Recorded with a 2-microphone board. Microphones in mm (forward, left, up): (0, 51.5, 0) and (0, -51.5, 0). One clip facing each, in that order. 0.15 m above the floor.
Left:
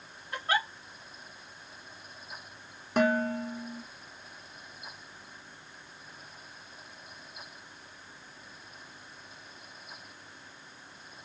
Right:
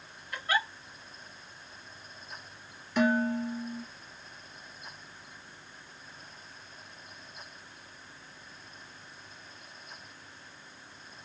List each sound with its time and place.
0.3 s a giggle: 30° left (ahead or behind), 2.0 m
3.0 s dishes clattering: 50° left (ahead or behind), 1.7 m